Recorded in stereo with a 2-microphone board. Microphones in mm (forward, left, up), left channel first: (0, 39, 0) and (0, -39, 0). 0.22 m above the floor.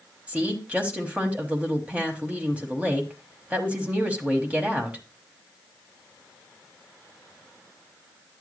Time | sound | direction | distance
0.3 | a woman speaking | 15° right (ahead or behind) | 1.1 m